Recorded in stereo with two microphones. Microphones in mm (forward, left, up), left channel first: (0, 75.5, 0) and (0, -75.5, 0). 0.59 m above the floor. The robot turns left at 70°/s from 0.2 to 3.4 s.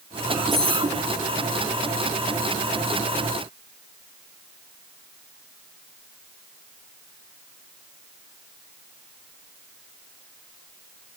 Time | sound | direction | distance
0.5 | cutlery clinking | centre (ahead or behind) | 5 m